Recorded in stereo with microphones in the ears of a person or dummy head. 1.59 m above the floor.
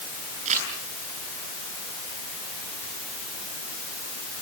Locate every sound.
0.5 s crumpling: 40° right (ahead or behind), 9.5 m